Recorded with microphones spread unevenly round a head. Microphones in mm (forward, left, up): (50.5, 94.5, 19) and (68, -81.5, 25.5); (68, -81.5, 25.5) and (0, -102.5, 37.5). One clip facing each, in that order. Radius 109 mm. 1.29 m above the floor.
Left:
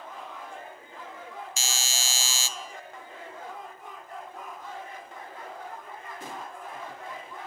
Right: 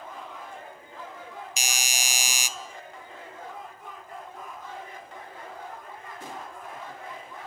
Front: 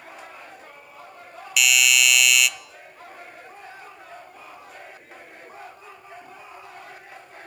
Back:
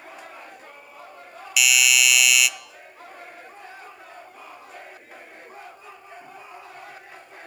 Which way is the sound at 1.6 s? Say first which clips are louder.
Right 4 dB, even; 45° right.